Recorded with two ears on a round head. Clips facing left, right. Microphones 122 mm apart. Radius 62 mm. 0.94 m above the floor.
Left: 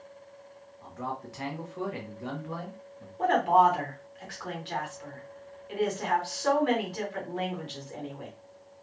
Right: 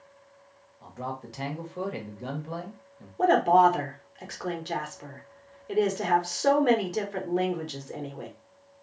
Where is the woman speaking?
50° right (ahead or behind), 1.1 m.